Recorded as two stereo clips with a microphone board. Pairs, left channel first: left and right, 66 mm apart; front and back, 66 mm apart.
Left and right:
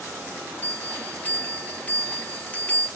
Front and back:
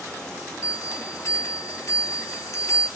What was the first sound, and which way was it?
A bell, 30° left.